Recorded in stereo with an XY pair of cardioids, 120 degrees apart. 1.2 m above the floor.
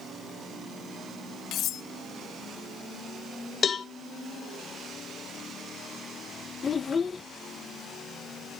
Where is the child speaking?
30° left, 0.7 m.